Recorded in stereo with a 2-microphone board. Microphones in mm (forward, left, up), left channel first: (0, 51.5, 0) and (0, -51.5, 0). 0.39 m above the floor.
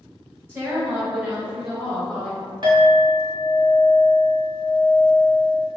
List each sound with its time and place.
0.5 s a woman speaking: 20° right (ahead or behind), 1.1 m; by 2.4 s 5° right (ahead or behind), 1.9 m
2.6 s a clink: 45° right (ahead or behind), 1.0 m